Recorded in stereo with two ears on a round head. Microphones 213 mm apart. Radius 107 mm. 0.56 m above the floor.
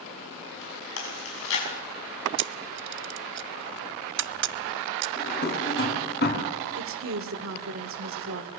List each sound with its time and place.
1.0 s chewing: 60° left (ahead or behind), 6 m
2.4 s a camera shutter: 50° right (ahead or behind), 0.5 m
5.2 s a drawer: 45° left (ahead or behind), 3.5 m
6.8 s a woman speaking: 60° right (ahead or behind), 1.8 m